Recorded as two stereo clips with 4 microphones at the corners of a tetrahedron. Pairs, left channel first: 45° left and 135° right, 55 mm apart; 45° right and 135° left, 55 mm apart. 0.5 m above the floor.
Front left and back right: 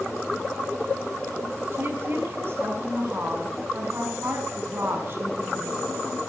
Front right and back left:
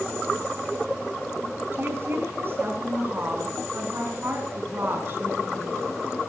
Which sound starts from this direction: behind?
A woman speaking, at 1.7 s.